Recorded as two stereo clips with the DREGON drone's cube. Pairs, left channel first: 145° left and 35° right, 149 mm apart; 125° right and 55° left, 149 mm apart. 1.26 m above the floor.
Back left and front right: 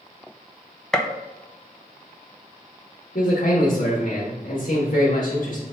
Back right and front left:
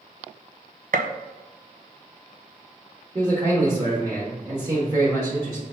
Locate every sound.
0.9 s a gunshot: 60° left, 0.6 m
3.1 s a man speaking: 120° left, 1.7 m